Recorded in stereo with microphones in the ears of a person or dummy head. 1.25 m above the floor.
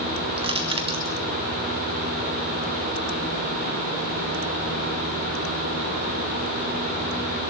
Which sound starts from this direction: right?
Crushing, at 0.4 s.